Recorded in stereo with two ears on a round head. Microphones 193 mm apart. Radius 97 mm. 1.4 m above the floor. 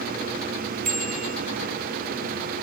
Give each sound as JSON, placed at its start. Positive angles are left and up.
{"t": 0.8, "sound": "a bicycle bell", "side_deg": -40, "distance_m": 4.5}